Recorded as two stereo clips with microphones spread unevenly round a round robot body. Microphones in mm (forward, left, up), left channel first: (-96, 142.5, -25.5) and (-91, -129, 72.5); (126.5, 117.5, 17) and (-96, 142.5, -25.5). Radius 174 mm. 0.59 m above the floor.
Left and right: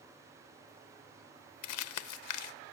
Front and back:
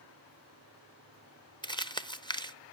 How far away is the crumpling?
About 1.2 m.